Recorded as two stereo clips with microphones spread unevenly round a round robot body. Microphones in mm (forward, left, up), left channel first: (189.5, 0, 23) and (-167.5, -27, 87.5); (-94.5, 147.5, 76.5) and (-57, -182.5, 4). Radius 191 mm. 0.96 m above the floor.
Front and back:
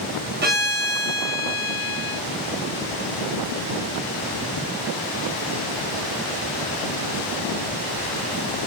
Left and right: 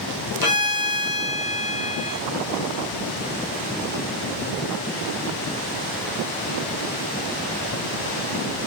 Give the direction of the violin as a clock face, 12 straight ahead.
8 o'clock.